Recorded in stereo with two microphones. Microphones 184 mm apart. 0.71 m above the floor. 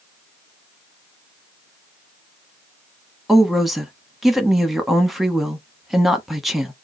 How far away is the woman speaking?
About 0.9 m.